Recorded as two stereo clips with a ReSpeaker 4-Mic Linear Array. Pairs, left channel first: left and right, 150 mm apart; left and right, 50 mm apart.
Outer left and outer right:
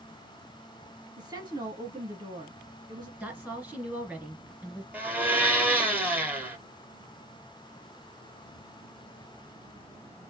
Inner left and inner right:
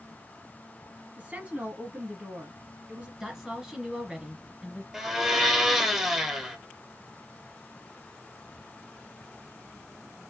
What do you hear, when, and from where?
1.2 s a woman speaking: 25° right (ahead or behind), 2 m
3.2 s a woman speaking: 10° right (ahead or behind), 1.9 m
4.9 s a blender: 10° right (ahead or behind), 1.0 m